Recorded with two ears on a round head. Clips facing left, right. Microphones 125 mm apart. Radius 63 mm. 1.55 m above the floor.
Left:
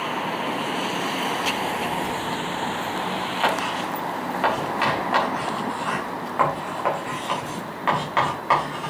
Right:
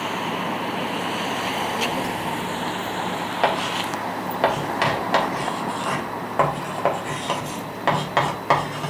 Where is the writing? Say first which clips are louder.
Right 2 dB; 45° right (ahead or behind), 3.5 m.